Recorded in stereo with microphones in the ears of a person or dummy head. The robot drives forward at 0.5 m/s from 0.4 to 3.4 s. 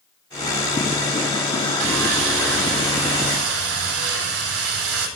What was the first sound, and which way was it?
Sawing, 75° right (ahead or behind).